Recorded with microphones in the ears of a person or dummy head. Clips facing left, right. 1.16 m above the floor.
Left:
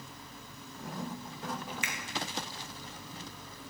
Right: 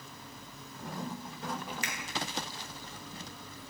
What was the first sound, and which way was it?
A finger snap, 35° right (ahead or behind).